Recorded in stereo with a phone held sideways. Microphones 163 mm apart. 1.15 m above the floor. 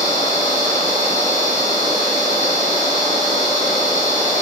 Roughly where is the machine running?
Right.